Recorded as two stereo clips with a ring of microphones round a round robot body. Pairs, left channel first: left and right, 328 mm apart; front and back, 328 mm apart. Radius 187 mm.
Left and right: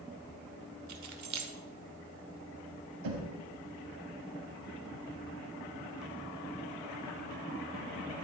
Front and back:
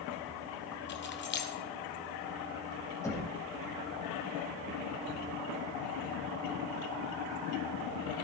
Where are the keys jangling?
55° right, 1.5 m.